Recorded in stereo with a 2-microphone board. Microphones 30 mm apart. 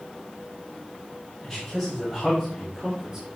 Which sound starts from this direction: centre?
A man speaking, at 1.4 s.